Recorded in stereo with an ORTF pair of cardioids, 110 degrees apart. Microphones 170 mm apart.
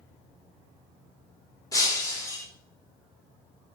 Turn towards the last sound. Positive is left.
turn(degrees=20)